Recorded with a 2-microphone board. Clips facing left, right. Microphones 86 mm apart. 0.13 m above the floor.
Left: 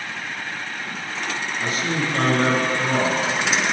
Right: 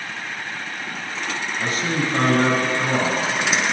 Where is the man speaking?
35° right (ahead or behind), 1.5 m.